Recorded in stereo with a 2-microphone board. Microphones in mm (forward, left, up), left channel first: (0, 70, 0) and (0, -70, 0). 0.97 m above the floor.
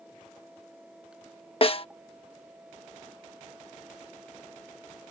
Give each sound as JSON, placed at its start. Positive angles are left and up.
{"t": 1.6, "sound": "a snare drum", "side_deg": 40}